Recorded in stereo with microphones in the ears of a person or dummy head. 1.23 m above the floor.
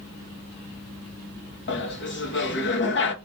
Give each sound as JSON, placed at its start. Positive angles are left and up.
{"t": 1.7, "sound": "laughter", "side_deg": 55, "distance_m": 0.8}